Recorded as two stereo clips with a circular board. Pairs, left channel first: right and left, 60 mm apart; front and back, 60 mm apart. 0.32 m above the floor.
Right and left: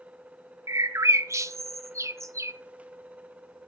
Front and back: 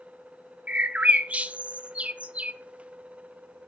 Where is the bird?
115° left, 0.8 m.